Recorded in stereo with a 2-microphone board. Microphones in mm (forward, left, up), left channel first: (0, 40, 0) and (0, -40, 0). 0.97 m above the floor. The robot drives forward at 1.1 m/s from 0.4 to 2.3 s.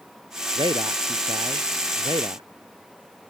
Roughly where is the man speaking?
Right.